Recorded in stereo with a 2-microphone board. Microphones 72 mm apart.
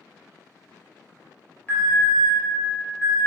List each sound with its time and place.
1.7 s an alarm: 25° left (ahead or behind), 1.6 m